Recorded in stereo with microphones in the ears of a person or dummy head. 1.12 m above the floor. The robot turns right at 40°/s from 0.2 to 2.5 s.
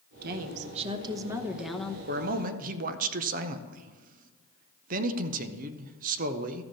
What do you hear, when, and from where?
0.2 s a woman speaking: 60° right, 0.8 m; by 2.0 s 10° left, 0.8 m
2.1 s a man speaking: 50° right (ahead or behind), 0.6 m; by 6.6 s 45° right (ahead or behind), 0.6 m